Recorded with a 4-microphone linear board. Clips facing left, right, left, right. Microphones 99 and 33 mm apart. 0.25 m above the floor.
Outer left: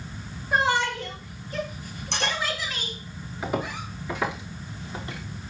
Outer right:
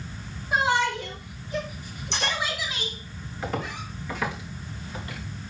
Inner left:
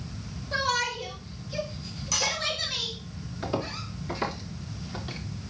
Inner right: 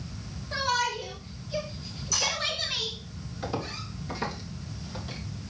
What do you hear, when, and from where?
0.5 s a shout: 5° right (ahead or behind), 4 m; by 3.0 s 15° right (ahead or behind), 2.5 m
2.1 s cutlery clinking: 55° left (ahead or behind), 7 m
3.4 s footsteps: 10° left (ahead or behind), 4.5 m; by 5.2 s 25° left (ahead or behind), 3.5 m